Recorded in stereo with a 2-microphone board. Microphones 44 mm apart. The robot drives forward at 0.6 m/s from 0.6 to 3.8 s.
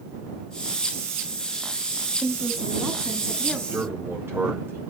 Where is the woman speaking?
5° left (ahead or behind), 1.7 m; by 3.6 s centre (ahead or behind), 2.5 m.